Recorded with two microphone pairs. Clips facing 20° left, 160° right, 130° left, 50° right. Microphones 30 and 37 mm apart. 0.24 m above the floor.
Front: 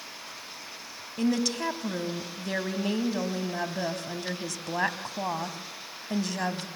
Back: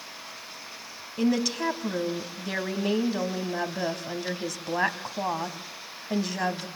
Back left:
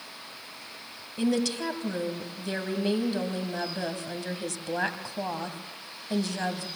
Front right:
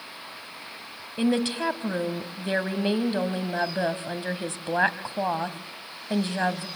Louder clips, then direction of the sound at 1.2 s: Back 2 dB, front right 2 dB; 85° right.